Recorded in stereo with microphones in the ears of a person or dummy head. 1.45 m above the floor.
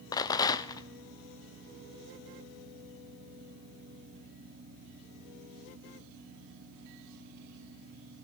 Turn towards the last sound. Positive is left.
turn(degrees=20)  # may be behind; listen again after turning